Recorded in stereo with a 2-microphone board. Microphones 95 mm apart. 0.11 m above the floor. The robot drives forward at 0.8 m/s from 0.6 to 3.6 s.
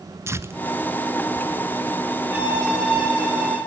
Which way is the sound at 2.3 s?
25° right (ahead or behind).